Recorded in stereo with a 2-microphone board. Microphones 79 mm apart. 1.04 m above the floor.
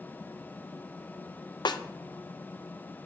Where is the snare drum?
65° left (ahead or behind), 0.6 m.